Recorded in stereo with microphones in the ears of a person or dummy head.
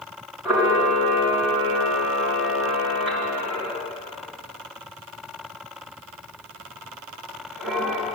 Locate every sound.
0.5 s a camera shutter: 5° right (ahead or behind), 4 m